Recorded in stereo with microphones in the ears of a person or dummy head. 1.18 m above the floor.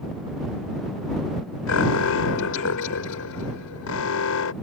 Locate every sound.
1.7 s an alarm: 80° left